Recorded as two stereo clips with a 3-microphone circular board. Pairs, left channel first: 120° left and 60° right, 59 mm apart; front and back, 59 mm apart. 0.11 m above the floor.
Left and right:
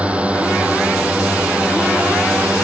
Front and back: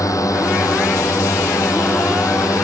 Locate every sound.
0.0 s a drone: 5° left